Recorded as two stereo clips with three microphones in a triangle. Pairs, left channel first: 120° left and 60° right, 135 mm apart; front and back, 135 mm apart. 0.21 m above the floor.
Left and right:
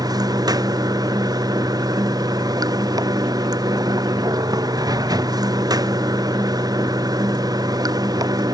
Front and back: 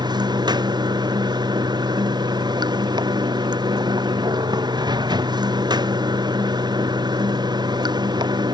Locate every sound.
0.0 s running water: 120° right